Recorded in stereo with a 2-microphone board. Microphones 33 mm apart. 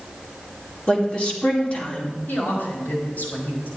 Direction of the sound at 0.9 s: 35° left (ahead or behind).